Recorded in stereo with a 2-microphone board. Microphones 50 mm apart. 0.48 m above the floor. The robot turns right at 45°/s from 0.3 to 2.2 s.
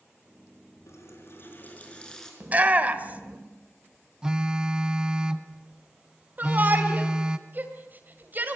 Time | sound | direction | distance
0.9 | a running tap | 105° left | 4.5 m
2.4 | a shout | 30° right (ahead or behind) | 1.8 m
4.2 | a phone buzzing | 15° right (ahead or behind) | 1.1 m
6.4 | a shout | 40° right (ahead or behind) | 2.5 m